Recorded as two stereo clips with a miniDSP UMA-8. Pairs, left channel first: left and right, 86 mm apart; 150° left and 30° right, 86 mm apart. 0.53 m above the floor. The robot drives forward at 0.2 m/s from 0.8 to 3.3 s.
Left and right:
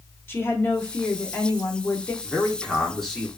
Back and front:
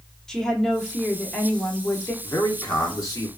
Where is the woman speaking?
75° left, 0.7 m; by 2.1 s 125° left, 0.7 m.